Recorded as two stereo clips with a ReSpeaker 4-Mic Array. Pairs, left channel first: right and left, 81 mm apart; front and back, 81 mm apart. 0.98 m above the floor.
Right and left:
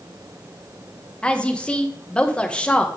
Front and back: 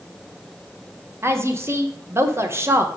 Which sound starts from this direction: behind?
A woman speaking, at 1.2 s.